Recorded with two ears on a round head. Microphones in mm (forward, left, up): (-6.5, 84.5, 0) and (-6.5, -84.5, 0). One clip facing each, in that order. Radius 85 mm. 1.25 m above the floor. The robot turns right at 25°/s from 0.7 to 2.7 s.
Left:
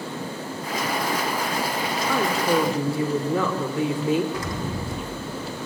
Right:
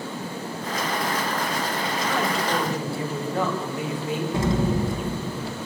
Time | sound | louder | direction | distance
2.1 | a woman speaking | left 5 dB | 80° left | 3.5 m
4.3 | an explosion | right 6 dB | 25° right (ahead or behind) | 1.4 m